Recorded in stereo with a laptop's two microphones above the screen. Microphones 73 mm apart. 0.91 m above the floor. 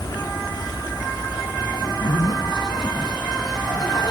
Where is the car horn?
No car horn in this recording.